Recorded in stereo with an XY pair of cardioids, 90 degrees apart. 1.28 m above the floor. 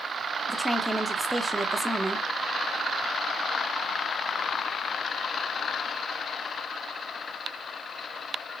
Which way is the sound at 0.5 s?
5° right.